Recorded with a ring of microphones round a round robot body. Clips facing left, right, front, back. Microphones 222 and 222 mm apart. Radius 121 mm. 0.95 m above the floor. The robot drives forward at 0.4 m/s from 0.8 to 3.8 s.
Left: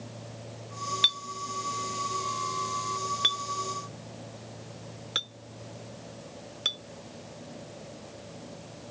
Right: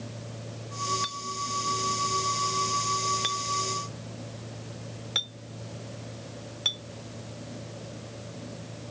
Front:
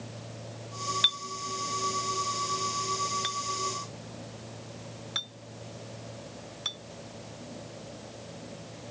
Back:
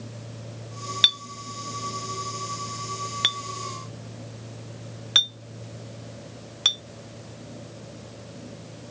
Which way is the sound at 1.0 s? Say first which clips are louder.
Right 3 dB, even; 145° left.